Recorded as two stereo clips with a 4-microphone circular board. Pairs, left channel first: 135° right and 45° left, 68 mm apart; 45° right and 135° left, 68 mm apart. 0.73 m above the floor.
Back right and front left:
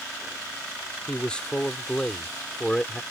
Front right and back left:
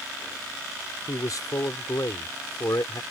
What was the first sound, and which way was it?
A man speaking, 60° right.